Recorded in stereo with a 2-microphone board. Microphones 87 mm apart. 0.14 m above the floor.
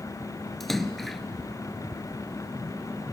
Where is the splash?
Centre (ahead or behind), 0.8 m.